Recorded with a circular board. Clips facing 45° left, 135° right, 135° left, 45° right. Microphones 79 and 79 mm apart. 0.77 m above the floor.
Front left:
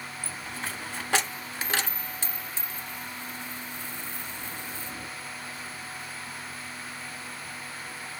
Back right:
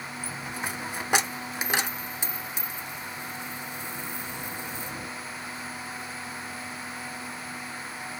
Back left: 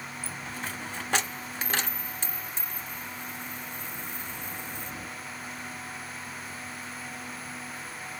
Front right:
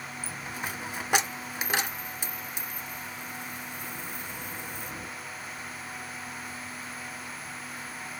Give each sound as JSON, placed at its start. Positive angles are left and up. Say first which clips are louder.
{"t": 0.2, "sound": "a dropped coin", "louder": "back right 3 dB, front right 1 dB", "azimuth_deg": -95, "distance_m": 0.7}